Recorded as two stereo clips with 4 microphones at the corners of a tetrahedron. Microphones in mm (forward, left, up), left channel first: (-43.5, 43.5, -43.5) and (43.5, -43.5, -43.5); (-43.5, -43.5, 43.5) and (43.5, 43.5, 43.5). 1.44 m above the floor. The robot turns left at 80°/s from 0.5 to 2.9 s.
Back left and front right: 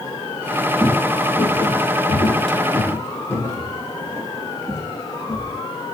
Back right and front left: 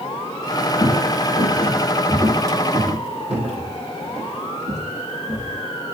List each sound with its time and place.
0.8 s footsteps: 105° right, 2 m; by 5.6 s 60° left, 5 m